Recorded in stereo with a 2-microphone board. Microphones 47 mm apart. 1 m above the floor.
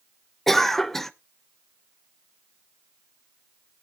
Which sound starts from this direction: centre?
A cough, at 0.5 s.